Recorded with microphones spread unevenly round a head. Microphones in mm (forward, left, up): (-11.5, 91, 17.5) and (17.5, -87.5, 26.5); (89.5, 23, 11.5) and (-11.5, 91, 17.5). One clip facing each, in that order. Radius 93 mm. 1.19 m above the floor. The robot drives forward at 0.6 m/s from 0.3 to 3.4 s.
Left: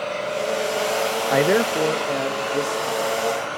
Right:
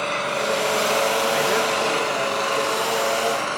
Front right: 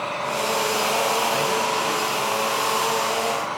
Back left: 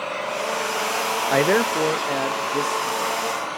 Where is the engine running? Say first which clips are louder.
Left 1 dB, front right 1 dB; 105° right, 6.5 m; by 3.6 s 120° right, 7.5 m.